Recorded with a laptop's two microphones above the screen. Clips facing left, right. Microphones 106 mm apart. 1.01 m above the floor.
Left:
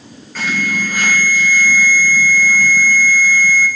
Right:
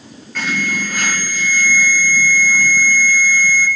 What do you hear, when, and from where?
0.3 s an alarm: 5° left (ahead or behind), 3 m